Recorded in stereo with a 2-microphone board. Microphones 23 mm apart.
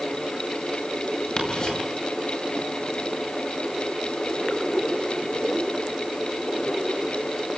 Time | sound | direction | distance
1.4 | ticking | 45° left (ahead or behind) | 8.5 m